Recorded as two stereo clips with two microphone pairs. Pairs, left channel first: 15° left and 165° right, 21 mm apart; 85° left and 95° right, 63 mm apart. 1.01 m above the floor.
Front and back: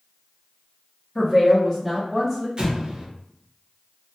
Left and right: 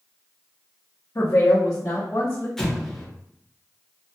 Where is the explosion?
165° left, 0.9 m.